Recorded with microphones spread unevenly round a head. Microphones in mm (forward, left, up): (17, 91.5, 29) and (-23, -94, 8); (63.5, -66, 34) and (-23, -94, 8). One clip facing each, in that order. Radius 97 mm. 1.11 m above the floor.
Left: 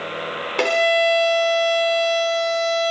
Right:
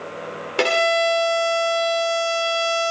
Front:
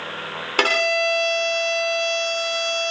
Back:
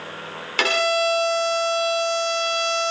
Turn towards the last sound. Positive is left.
turn(degrees=-20)